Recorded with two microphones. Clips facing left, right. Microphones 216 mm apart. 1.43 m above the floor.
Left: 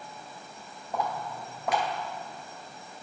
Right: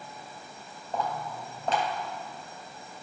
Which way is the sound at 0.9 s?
15° left (ahead or behind).